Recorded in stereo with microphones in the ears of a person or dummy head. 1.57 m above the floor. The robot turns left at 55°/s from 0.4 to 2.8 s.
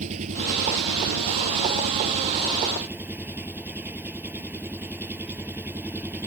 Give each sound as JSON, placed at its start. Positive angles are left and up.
{"t": 0.0, "sound": "an engine running", "azimuth_deg": -35}